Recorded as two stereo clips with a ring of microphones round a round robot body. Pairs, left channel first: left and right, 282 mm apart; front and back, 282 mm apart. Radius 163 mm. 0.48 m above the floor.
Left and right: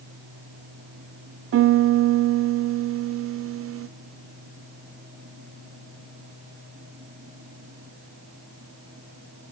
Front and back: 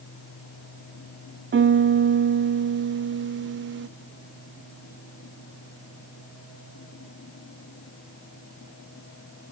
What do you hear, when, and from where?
1.5 s a piano: 130° right, 0.5 m